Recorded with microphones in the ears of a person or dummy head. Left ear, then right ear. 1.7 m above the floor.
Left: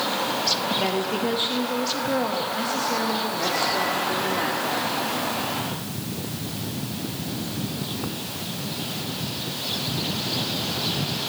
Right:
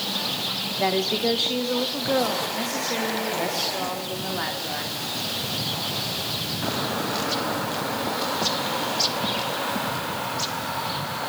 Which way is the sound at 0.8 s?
30° right (ahead or behind).